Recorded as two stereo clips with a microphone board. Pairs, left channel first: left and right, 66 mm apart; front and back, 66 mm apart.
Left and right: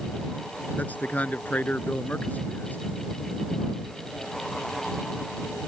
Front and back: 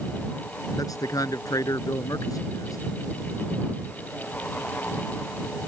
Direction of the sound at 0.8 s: 25° left.